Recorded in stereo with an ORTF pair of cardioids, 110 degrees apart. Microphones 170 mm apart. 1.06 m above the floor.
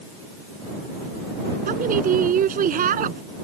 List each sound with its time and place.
1.7 s a woman speaking: 55° right